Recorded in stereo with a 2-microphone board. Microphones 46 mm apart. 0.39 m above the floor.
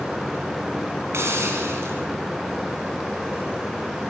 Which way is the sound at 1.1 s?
60° right (ahead or behind).